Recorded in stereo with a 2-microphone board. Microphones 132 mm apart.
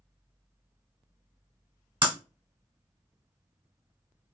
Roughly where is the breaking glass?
Right.